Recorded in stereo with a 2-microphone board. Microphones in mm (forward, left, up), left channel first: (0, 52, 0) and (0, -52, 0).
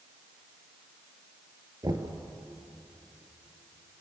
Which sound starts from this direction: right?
Knocking, at 1.8 s.